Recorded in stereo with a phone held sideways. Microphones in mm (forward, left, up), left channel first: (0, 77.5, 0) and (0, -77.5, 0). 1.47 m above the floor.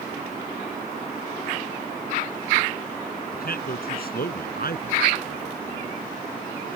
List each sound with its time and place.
3.3 s a man speaking: 70° left (ahead or behind); by 6.0 s 80° left